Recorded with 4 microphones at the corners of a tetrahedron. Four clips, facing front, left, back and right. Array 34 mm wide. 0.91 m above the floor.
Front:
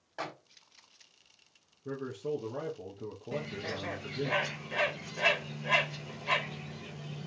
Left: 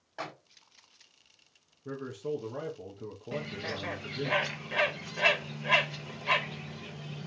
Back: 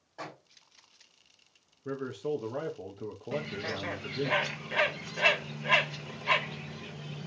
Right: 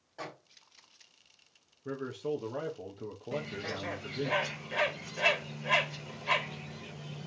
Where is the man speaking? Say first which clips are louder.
Right 1 dB, back 2 dB; 160° right, 0.7 m.